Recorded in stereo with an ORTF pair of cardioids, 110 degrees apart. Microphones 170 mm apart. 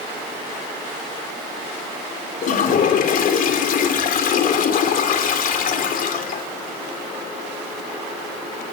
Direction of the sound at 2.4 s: 55° left.